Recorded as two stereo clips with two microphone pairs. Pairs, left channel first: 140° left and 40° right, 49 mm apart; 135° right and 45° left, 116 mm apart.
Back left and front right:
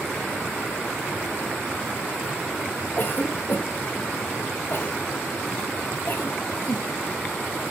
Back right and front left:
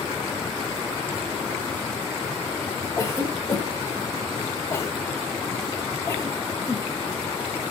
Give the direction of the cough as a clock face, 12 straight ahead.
6 o'clock.